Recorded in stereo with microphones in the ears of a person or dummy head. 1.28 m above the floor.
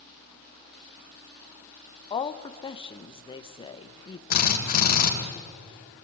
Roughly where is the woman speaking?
Left.